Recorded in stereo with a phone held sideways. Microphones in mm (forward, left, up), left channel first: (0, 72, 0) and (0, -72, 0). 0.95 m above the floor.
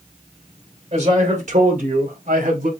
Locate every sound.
0.9 s a man speaking: 50° right (ahead or behind), 3 m; by 2.7 s 75° right (ahead or behind), 3.5 m